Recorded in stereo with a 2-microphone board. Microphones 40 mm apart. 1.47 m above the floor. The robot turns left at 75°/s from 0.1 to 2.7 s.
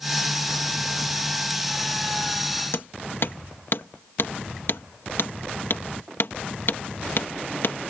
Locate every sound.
2.7 s hammering: 65° left (ahead or behind)